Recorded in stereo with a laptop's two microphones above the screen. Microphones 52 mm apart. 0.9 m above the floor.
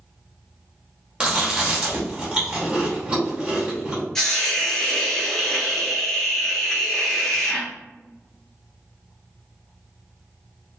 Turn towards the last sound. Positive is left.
turn(degrees=10)  # may be behind; listen again after turning